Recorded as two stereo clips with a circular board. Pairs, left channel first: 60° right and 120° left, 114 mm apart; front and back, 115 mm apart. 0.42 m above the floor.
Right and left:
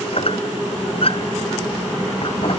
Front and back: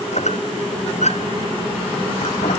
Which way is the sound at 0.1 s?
20° right.